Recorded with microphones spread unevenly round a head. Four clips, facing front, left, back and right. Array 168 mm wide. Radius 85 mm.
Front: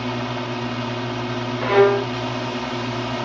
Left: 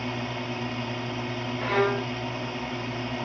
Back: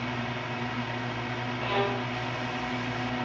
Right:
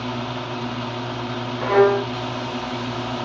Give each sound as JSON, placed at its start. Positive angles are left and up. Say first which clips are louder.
{"t": 0.0, "sound": "a drone", "louder": "right 4 dB, front 8 dB", "azimuth_deg": -15}
{"t": 1.6, "sound": "a violin", "louder": "right 9 dB, front 14 dB", "azimuth_deg": -40}